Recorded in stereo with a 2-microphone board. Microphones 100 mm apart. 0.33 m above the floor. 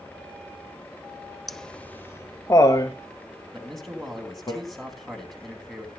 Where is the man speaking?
Centre (ahead or behind), 3 m.